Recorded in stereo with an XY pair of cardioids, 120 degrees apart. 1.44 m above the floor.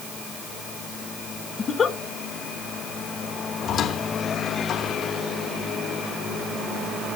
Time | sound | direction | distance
1.6 | a giggle | 35° left | 1.3 m
3.6 | a squeak | 55° left | 2.5 m